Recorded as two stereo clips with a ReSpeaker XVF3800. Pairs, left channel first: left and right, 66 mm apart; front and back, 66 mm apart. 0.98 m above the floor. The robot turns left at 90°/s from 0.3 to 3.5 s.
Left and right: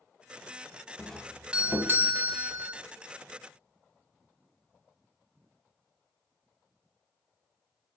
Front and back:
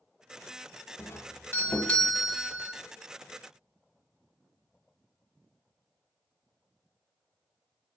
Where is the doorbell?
15° left, 1.1 m; by 2.7 s 140° right, 1.1 m.